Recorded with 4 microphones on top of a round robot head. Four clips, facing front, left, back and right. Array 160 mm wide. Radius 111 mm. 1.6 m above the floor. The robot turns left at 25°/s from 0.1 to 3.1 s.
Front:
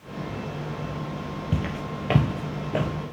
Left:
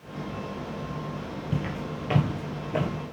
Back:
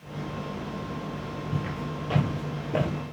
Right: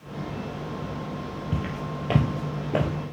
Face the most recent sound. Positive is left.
turn(degrees=-115)